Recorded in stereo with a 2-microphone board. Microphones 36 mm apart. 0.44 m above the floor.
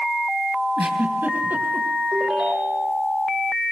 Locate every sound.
0.8 s a giggle: 65° right (ahead or behind), 3.5 m
2.1 s a ringtone: 30° right (ahead or behind), 9 m